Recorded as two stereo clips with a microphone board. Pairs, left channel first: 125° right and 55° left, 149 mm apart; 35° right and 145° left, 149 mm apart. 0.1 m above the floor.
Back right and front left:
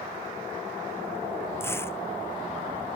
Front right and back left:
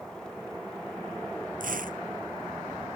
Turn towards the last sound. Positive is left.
turn(degrees=165)